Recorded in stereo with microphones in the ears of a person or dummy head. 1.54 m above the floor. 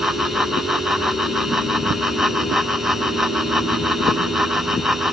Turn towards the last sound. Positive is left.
turn(degrees=0)  # may be behind; listen again after turning